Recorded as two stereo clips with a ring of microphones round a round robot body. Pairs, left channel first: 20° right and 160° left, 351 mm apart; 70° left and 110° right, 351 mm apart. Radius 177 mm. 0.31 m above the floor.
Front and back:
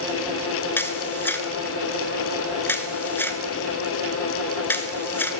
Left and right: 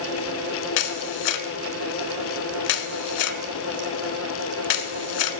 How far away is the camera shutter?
About 0.7 m.